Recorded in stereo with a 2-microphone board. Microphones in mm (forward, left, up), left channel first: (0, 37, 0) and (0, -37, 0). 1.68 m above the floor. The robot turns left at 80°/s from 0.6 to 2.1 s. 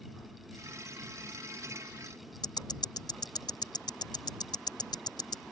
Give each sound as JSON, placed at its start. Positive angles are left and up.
{"t": 2.4, "sound": "ticking", "side_deg": 70}